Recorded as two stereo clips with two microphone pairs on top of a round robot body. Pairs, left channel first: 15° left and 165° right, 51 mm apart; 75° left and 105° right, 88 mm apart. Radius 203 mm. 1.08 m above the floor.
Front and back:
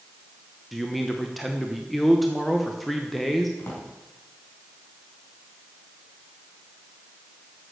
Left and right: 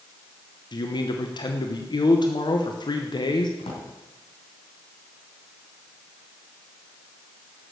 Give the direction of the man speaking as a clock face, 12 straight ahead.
9 o'clock.